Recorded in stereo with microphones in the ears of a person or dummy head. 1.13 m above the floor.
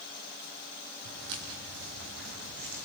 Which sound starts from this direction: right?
Footsteps, at 1.1 s.